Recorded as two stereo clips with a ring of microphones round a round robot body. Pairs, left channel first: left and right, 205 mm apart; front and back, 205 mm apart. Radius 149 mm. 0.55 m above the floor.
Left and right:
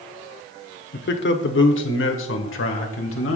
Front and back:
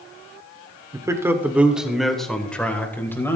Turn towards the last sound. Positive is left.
turn(degrees=80)